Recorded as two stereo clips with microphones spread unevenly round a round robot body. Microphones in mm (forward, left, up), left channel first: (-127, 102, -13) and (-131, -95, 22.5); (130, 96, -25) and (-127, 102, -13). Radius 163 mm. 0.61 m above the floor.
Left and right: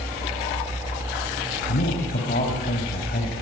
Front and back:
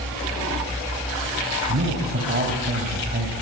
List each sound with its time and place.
1.7 s a man speaking: 130° left, 4 m